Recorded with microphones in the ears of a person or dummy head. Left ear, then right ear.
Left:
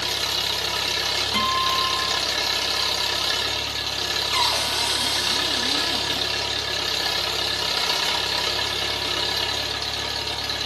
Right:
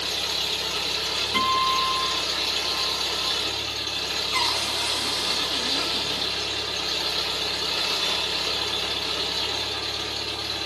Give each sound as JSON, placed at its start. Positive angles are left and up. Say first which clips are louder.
{"t": 0.0, "sound": "an engine running", "louder": "left 2 dB", "side_deg": 65, "distance_m": 0.8}
{"t": 1.3, "sound": "a guitar", "louder": "right 1 dB", "side_deg": 80, "distance_m": 1.3}
{"t": 4.3, "sound": "a cupboard door", "louder": "left 2 dB", "side_deg": 80, "distance_m": 1.0}